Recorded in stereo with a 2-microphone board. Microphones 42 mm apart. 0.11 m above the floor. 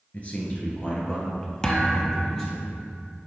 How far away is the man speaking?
About 1.5 m.